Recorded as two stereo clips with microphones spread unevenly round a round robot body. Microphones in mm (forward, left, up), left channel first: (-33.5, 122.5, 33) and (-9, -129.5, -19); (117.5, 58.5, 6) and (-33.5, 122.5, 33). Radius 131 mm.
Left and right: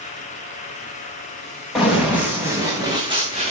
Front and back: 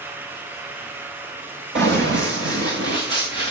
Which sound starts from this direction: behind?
Running footsteps, at 1.8 s.